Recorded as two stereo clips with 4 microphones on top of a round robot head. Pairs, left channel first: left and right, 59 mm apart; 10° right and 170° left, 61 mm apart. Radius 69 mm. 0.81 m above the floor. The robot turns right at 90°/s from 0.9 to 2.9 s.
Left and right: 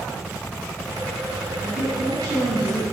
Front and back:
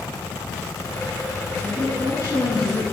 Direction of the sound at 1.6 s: 105° right.